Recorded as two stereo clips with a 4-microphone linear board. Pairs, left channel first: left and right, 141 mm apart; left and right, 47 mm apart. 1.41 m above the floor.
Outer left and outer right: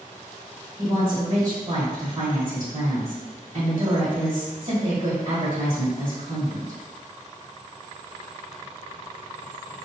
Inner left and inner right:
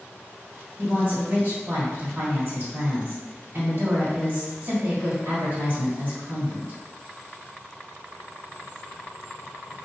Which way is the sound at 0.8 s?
40° right (ahead or behind).